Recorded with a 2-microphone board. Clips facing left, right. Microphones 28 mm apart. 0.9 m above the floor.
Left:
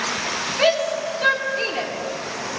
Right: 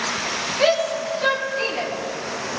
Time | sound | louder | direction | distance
0.6 | a shout | even | 20° left (ahead or behind) | 2.5 m